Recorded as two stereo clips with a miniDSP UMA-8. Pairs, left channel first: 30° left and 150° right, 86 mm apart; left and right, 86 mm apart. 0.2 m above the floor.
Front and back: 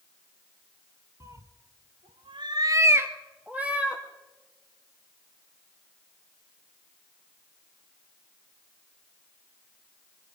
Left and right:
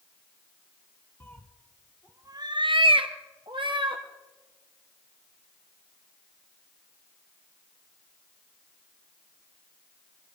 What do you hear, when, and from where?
1.2 s a cat meowing: 155° left, 1.4 m; by 4.0 s 70° right, 2.5 m